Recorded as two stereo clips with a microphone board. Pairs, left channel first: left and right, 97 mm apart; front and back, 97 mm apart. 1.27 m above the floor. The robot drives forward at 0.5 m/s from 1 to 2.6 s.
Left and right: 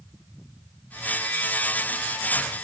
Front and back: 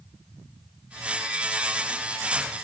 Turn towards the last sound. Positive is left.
No sound to turn to.